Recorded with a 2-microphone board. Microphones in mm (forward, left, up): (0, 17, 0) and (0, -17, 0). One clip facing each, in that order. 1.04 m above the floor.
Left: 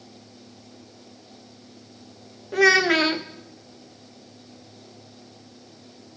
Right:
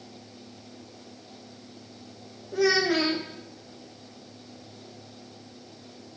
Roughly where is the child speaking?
Left.